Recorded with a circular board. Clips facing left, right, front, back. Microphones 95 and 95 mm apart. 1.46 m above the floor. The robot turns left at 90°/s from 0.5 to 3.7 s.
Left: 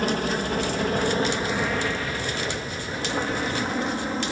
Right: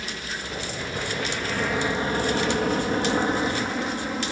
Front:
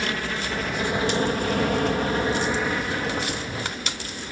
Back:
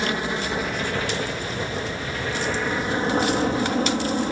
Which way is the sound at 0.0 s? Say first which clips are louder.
Left 10 dB, back 3 dB; 110° left.